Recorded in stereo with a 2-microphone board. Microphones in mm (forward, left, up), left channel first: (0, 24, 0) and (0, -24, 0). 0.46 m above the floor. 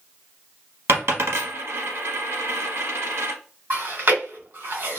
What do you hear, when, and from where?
0.9 s a dropped coin: 60° right (ahead or behind), 0.9 m
3.7 s chewing: 50° right (ahead or behind), 1.2 m